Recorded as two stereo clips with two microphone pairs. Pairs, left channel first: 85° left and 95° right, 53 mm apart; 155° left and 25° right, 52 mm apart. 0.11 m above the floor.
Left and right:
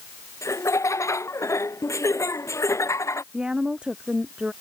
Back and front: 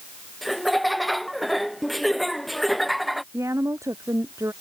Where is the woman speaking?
20° right.